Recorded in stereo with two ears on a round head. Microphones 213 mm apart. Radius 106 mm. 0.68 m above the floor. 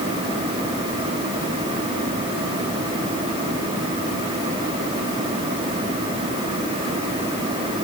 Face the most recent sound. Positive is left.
No sound to turn to.